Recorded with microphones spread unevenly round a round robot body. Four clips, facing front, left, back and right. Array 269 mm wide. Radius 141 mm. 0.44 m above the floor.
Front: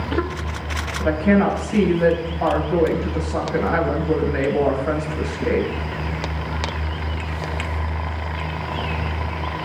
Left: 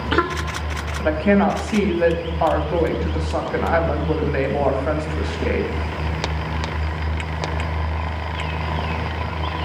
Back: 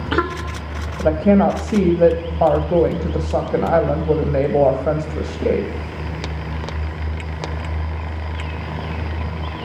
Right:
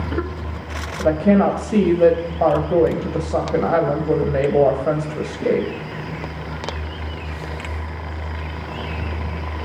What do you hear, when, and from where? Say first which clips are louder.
1.0 s a woman speaking: right 2 dB, back 3 dB; 160° right, 2.5 m